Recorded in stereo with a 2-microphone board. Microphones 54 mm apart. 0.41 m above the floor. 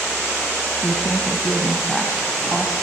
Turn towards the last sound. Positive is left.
turn(degrees=-5)  # may be behind; listen again after turning